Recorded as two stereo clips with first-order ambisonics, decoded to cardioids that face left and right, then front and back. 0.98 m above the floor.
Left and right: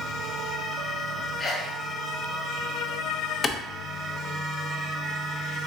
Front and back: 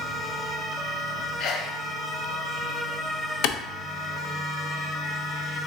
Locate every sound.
1.4 s a sneeze: 25° left, 0.6 m
3.4 s a clap: 20° left, 0.5 m